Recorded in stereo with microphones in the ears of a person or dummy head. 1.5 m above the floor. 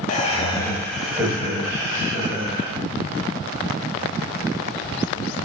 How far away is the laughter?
About 0.5 m.